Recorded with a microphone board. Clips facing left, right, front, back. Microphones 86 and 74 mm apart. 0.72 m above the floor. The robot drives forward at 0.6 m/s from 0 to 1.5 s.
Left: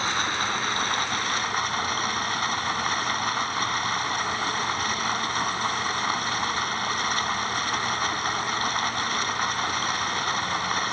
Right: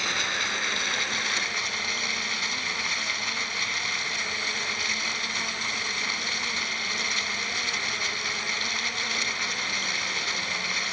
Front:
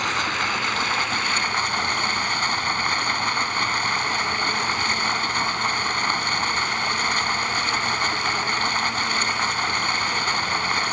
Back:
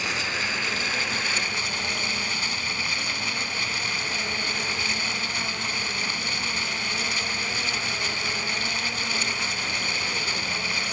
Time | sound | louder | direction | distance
0.0 | running water | left 4 dB, front 5 dB | 40° left | ?